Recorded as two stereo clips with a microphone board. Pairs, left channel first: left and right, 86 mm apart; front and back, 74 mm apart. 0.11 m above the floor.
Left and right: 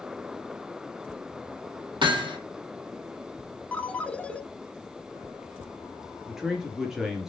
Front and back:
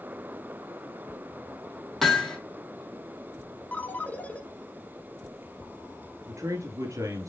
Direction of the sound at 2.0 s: 85° right.